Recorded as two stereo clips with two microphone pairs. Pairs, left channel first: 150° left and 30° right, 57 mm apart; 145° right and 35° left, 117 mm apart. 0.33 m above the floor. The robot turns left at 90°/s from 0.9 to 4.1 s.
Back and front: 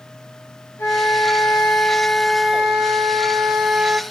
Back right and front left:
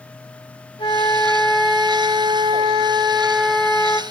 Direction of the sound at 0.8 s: Straight behind.